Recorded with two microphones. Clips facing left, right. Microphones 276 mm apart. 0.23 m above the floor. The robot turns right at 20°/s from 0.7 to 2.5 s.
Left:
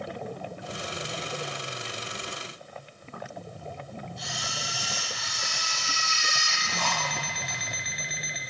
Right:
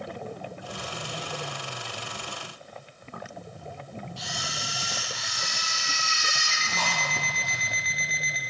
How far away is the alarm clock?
About 1.9 m.